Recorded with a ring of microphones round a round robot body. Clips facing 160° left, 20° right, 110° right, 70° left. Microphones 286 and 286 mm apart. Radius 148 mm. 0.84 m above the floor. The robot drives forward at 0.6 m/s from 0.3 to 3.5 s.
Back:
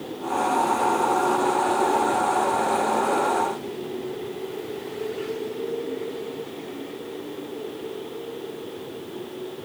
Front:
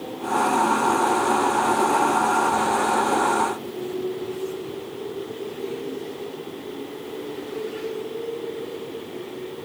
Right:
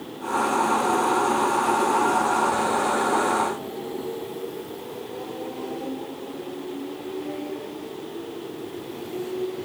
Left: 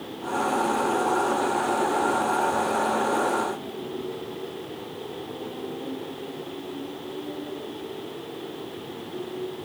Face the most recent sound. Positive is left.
No sound to turn to.